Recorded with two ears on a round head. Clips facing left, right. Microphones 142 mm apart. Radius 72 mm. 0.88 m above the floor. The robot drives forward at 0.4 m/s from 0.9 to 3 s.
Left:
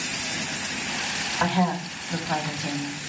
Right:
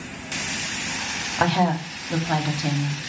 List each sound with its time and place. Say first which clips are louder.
1.4 s a woman speaking: right 3 dB; 50° right (ahead or behind), 2 m; by 3.0 s 40° right (ahead or behind), 2.5 m